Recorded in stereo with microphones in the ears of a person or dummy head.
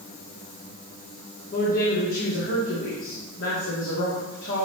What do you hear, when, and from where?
1.5 s a woman speaking: 65° left (ahead or behind), 2 m